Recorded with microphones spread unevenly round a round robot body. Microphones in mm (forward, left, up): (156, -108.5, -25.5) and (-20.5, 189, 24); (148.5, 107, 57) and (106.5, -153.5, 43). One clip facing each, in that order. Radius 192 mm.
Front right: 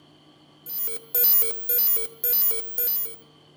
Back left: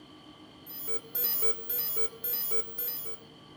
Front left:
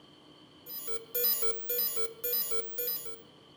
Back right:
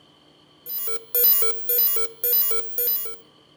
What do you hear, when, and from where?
0.7 s an alarm: 90° right, 0.8 m